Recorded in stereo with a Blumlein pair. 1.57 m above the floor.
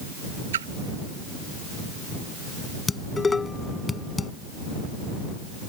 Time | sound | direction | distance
0.5 | a splash | 65° right | ?
2.9 | dishes clattering | 15° left | ?